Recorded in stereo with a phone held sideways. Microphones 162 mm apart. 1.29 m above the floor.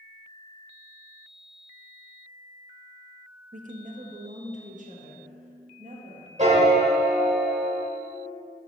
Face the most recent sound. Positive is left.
turn(degrees=-45)  # may be behind; listen again after turning